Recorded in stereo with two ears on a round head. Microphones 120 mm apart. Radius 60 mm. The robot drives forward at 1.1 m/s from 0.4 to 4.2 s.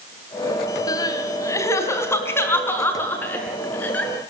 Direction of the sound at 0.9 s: 30° left (ahead or behind).